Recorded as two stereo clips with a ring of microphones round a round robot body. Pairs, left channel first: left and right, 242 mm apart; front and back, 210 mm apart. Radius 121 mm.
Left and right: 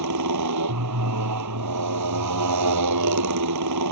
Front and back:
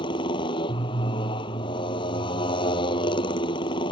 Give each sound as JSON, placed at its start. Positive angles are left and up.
{"t": 0.0, "sound": "a motorcycle", "azimuth_deg": -75}